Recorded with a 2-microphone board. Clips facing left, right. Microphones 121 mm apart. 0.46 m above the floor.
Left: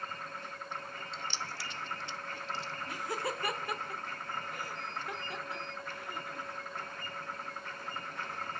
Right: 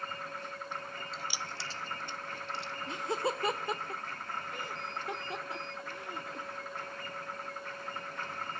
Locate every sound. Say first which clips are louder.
1.1 s keys jangling: left 1 dB; centre (ahead or behind), 0.6 m; by 2.7 s 70° right (ahead or behind), 1.0 m
2.9 s laughter: right 4 dB; 25° right (ahead or behind), 1.0 m